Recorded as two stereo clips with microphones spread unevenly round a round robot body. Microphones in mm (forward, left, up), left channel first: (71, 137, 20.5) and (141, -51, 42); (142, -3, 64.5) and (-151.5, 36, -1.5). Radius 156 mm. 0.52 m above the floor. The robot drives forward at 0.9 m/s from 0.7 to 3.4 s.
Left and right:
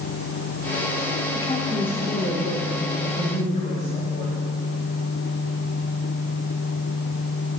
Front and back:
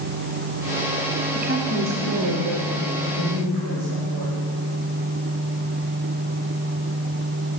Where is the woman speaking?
155° left, 1.1 m; by 4.4 s 175° left, 2.5 m.